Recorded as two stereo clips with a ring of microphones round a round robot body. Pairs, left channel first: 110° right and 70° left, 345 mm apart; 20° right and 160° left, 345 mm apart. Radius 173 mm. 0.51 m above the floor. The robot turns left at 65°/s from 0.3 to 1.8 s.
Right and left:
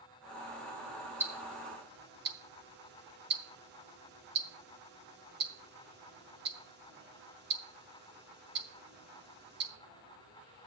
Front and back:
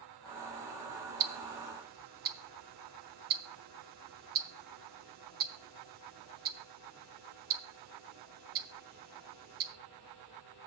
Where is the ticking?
150° left, 0.6 m; by 9.7 s 110° left, 0.6 m.